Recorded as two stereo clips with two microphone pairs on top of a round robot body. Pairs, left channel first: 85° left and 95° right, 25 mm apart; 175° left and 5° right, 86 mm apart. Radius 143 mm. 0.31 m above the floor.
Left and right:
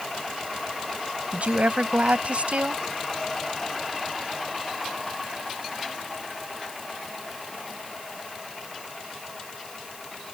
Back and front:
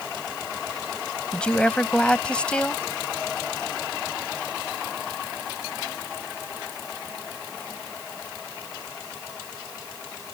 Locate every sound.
1.3 s a woman speaking: 110° right